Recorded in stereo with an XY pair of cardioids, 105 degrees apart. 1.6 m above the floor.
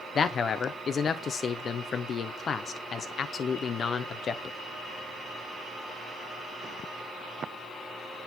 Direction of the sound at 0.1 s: 45° left.